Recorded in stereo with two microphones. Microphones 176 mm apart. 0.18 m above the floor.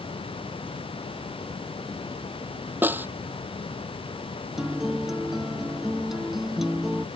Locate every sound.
2.8 s a snare drum: 10° right (ahead or behind)
4.6 s a guitar: centre (ahead or behind)